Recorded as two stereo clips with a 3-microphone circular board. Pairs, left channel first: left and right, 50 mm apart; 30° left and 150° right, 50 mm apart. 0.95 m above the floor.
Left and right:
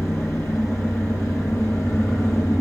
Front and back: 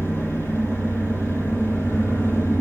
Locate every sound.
0.0 s an engine running: 75° left, 10 m